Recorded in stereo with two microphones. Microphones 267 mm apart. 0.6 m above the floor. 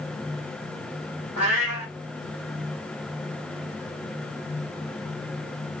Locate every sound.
1.4 s a cat meowing: 65° right (ahead or behind), 1.1 m